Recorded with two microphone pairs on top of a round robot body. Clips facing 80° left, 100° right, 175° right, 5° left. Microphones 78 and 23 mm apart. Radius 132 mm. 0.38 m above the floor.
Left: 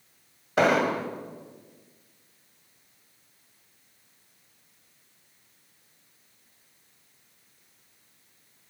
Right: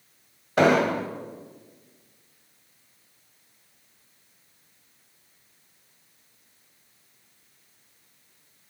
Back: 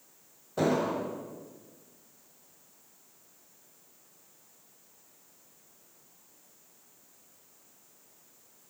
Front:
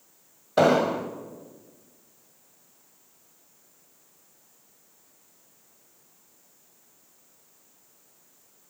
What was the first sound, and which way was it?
An explosion, 10° right.